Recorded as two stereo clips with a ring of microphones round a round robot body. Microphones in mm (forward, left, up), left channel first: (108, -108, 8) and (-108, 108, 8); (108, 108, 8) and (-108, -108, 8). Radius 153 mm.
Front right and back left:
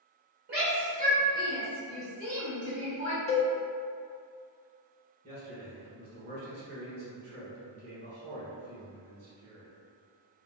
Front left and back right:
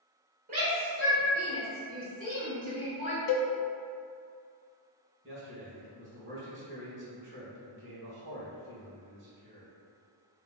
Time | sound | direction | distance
0.5 | a shout | straight behind | 1.9 m
3.3 | a cowbell | 25° left | 0.5 m
5.2 | a man speaking | straight behind | 1.6 m